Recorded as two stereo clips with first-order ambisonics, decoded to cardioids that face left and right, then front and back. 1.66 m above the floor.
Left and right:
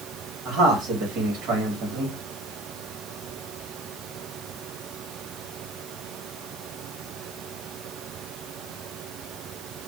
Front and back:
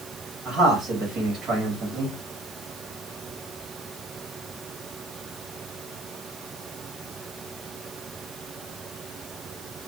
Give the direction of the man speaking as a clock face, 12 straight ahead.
4 o'clock.